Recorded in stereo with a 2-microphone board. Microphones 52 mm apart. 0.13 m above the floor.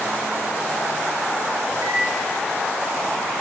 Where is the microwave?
65° right (ahead or behind), 8 m.